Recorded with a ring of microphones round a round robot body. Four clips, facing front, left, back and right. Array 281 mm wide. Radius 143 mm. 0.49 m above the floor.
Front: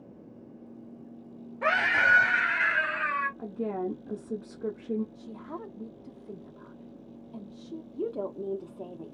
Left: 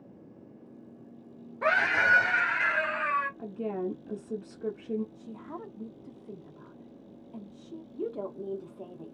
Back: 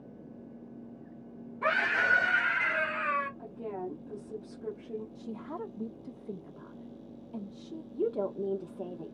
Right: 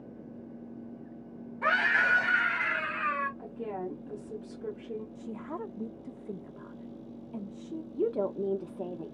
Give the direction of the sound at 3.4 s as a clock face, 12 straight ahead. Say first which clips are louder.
Left 3 dB, front 6 dB; 11 o'clock.